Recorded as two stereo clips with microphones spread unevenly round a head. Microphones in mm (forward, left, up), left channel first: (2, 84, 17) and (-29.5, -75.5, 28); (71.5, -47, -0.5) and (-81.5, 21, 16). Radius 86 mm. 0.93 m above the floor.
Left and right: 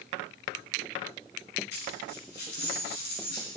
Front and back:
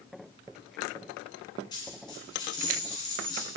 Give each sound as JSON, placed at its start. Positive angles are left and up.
{"t": 1.7, "sound": "a dropped coin", "azimuth_deg": 45, "distance_m": 4.0}